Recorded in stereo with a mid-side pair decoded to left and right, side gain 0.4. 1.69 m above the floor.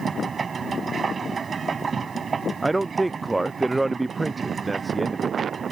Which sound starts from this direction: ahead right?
A machine running, at 0.0 s.